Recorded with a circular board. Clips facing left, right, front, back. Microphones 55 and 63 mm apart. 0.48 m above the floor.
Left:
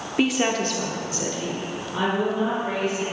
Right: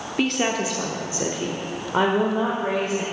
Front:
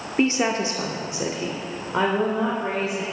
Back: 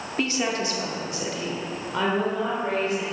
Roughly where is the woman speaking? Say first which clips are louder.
Left 1 dB, front 5 dB; ahead left.